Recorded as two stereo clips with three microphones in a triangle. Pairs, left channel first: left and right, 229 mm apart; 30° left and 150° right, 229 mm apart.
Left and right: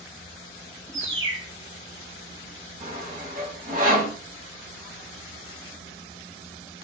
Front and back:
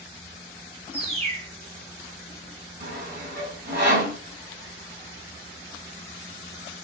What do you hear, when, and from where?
0.9 s a bird: 90° right, 0.9 m
2.8 s sawing: 130° right, 1.5 m